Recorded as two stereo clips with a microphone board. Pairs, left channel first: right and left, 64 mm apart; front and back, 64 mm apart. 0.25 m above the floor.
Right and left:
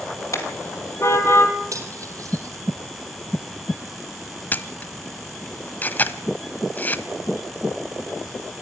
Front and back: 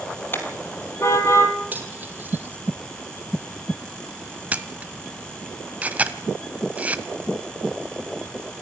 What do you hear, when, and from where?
0.3 s a car horn: 55° right, 2.5 m; by 1.5 s 40° right, 2.5 m
1.7 s cutlery clinking: 120° left, 3.5 m
4.5 s a camera shutter: 130° right, 1.0 m